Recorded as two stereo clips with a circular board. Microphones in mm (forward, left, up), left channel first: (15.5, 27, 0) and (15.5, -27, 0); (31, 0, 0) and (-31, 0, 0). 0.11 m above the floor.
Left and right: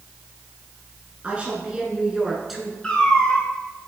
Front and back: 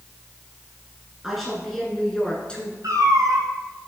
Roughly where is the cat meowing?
Behind.